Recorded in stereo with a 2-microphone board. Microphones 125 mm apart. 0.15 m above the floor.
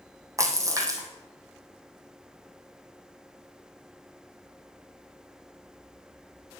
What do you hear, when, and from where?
0.4 s a splash: 25° right (ahead or behind), 2.5 m